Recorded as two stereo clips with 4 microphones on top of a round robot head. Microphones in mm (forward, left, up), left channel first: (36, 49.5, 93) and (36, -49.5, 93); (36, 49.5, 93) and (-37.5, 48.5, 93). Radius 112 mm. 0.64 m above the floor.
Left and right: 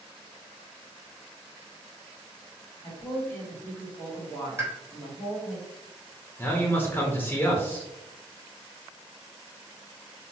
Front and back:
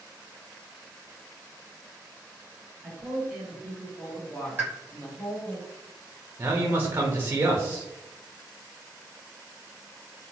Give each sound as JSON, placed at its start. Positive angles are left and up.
{"t": 2.8, "sound": "a woman speaking", "azimuth_deg": 130, "distance_m": 1.1}
{"t": 4.6, "sound": "a pop", "azimuth_deg": -135, "distance_m": 1.2}
{"t": 6.4, "sound": "a man speaking", "azimuth_deg": 140, "distance_m": 0.7}